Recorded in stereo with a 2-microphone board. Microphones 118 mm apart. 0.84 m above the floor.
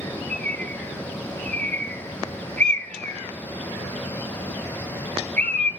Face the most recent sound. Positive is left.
turn(degrees=-80)